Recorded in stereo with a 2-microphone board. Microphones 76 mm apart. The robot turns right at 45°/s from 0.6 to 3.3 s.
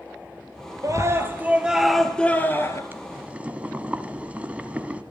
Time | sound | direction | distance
0.8 | a scream | 50° right | 3 m
2.9 | boiling | 25° right (ahead or behind) | 1.9 m